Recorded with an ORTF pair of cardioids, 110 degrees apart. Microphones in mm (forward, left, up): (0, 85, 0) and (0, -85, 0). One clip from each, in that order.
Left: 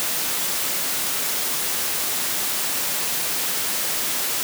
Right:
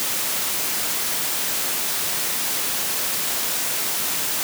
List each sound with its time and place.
Only background noise.